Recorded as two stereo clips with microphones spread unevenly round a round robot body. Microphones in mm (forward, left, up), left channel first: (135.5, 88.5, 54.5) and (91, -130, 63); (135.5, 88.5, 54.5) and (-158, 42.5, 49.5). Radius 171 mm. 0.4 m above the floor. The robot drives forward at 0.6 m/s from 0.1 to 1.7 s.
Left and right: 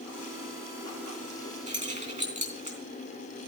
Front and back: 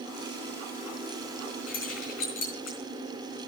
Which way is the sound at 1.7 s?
45° right.